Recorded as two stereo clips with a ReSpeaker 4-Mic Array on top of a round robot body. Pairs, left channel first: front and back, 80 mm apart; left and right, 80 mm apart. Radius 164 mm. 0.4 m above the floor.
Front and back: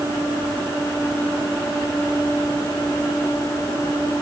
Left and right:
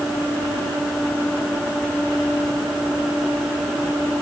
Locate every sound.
Only background noise.